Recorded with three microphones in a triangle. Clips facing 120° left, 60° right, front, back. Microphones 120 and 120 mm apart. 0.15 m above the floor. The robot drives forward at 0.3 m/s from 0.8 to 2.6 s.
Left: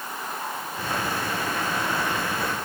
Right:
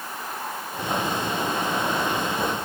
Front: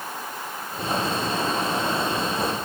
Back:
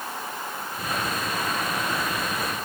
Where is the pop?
I don't hear a pop.